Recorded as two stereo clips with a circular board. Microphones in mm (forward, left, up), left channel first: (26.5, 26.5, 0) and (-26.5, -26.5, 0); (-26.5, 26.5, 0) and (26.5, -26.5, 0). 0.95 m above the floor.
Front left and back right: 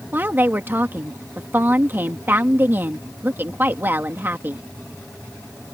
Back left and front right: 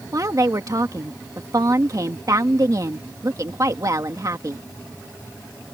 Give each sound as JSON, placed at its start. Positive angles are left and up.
{"t": 0.1, "sound": "a woman speaking", "azimuth_deg": -75}